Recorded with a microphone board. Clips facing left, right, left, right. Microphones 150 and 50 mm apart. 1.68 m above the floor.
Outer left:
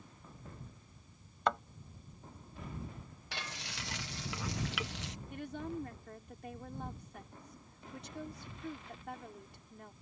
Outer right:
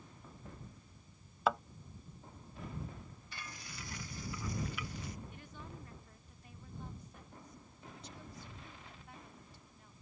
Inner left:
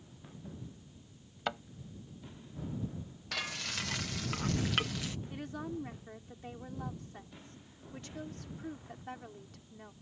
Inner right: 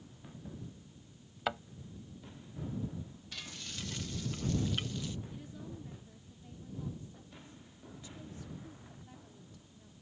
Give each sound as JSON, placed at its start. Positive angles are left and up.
{"t": 1.5, "sound": "a thud", "side_deg": -5}
{"t": 3.3, "sound": "frying", "side_deg": 85}
{"t": 5.3, "sound": "a woman speaking", "side_deg": 70}